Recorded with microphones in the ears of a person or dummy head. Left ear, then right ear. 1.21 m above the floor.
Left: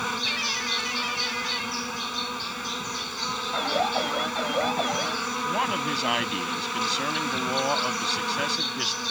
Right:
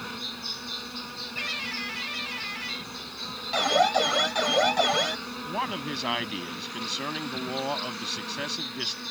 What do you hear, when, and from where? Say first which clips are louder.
0.0 s an insect: left 8 dB; 45° left (ahead or behind)
3.5 s an alarm: right 5 dB; 40° right (ahead or behind)
5.5 s a man speaking: left 3 dB; 5° left (ahead or behind)